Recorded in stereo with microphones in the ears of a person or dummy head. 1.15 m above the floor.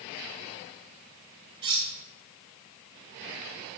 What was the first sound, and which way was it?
Cutlery clinking, 25° right (ahead or behind).